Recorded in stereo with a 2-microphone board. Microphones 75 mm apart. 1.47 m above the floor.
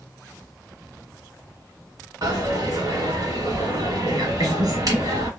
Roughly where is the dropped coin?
Right.